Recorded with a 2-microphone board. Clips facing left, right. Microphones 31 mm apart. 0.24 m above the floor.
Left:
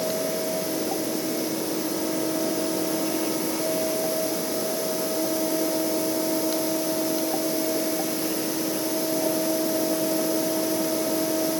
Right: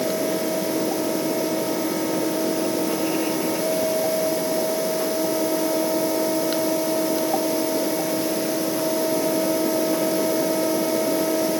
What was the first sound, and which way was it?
Only background noise.